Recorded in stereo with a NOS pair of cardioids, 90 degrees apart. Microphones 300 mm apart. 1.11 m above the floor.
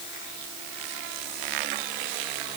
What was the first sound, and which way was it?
Only background noise.